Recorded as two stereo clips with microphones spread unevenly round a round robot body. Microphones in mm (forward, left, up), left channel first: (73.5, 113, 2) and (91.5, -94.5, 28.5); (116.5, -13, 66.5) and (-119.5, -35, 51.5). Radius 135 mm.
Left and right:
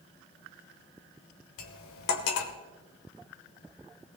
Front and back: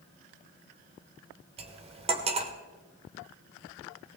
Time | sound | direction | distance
1.6 | cutlery clinking | 120° left | 1.1 m